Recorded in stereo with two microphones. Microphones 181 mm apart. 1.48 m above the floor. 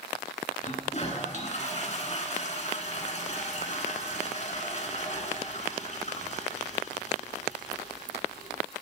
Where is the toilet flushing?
40° left (ahead or behind), 1.4 m.